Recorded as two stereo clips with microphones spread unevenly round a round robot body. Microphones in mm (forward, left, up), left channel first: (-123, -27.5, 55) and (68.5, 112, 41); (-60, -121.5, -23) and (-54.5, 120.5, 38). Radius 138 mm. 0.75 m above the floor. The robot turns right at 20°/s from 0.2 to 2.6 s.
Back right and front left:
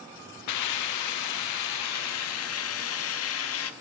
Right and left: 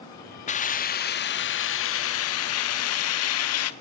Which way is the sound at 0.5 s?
150° right.